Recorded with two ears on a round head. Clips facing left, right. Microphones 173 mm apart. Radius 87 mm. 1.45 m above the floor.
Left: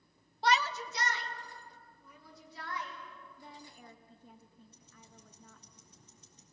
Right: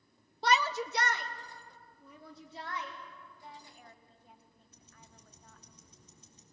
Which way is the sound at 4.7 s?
65° right (ahead or behind).